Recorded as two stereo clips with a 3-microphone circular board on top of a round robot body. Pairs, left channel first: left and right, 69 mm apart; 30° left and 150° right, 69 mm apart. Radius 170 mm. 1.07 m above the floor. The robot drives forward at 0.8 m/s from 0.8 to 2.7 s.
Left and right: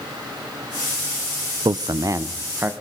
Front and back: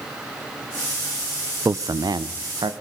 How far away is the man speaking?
About 0.6 m.